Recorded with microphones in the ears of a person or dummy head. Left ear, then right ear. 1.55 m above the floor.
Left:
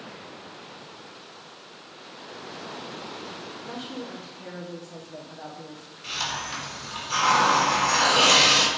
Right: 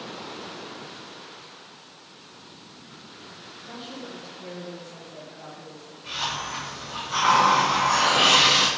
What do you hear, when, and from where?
3.7 s a woman speaking: 70° left (ahead or behind), 1.1 m
6.0 s a hiss: 70° left (ahead or behind), 3 m